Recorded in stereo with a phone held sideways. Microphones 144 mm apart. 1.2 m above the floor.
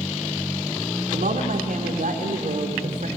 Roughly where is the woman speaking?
Right.